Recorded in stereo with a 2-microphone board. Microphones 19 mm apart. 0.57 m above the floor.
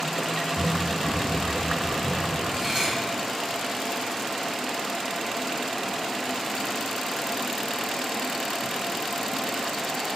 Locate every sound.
0.6 s running footsteps: 15° right (ahead or behind), 2 m; by 2.4 s 50° right (ahead or behind), 3 m
2.5 s cutlery clinking: 30° right (ahead or behind), 3 m